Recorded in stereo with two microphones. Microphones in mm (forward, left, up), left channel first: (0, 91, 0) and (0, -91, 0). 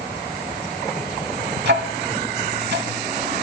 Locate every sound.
1.6 s ticking: 70° right (ahead or behind), 0.6 m